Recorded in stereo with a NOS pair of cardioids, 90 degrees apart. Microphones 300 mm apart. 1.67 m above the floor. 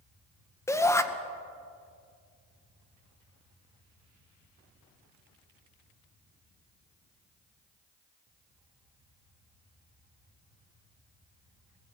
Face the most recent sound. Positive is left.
turn(degrees=10)